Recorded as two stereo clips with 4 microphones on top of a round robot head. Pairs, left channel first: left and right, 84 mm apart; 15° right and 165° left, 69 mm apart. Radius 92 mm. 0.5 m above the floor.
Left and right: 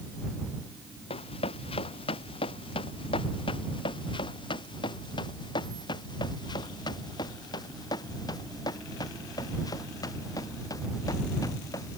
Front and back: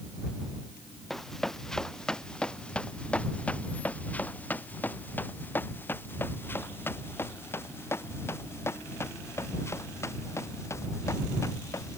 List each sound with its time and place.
1.1 s running footsteps: 70° left; by 12.0 s 35° left